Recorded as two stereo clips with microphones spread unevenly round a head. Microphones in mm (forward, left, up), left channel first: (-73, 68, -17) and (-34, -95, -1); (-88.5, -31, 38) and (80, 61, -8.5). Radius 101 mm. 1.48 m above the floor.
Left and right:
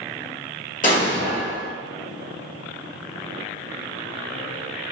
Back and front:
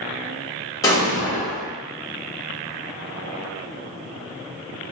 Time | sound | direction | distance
0.8 | an explosion | 145° left | 1.3 m